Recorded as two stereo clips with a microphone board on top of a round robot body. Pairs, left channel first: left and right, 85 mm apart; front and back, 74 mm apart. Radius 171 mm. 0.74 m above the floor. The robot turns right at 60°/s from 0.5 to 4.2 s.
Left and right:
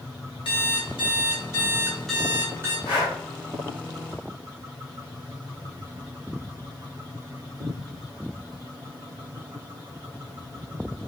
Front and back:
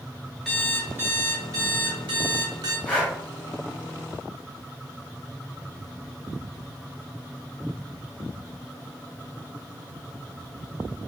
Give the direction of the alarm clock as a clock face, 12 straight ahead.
9 o'clock.